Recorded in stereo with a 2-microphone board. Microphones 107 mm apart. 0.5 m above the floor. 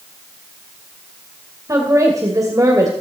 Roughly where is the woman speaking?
Right.